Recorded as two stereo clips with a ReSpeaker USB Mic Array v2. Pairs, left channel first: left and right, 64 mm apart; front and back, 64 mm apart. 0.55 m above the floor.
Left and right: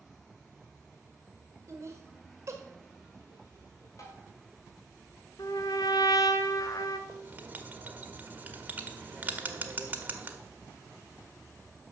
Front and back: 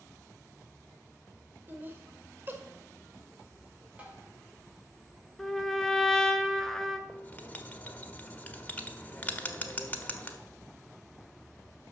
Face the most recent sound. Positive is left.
turn(degrees=-50)